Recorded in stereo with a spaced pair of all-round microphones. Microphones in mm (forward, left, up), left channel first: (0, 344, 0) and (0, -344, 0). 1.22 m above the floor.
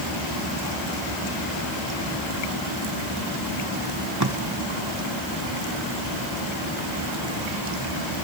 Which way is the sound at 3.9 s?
25° right (ahead or behind).